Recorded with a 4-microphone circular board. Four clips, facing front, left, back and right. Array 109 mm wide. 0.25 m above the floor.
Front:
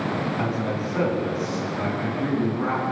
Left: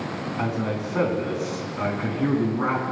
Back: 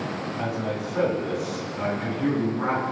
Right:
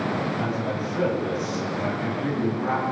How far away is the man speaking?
About 3 m.